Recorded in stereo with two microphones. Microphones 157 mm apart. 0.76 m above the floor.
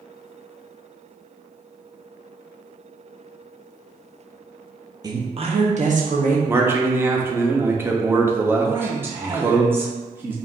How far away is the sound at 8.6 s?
About 0.9 m.